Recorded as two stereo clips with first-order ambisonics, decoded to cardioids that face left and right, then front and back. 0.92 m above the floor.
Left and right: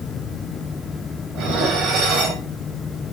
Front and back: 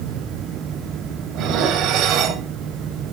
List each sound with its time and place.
1.4 s dishes clattering: 135° right, 4 m